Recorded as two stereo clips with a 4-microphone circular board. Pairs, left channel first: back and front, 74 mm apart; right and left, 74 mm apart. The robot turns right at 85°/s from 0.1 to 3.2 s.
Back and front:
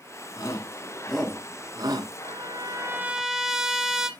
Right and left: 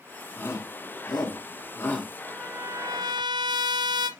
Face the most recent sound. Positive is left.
turn(degrees=85)